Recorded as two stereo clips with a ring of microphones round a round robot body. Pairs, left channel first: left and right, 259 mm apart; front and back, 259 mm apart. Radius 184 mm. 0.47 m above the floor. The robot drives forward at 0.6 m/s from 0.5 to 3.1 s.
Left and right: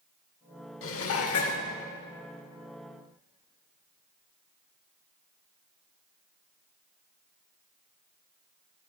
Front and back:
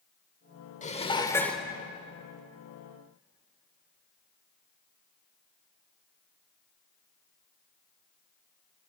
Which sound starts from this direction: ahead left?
Dishes clattering, at 0.8 s.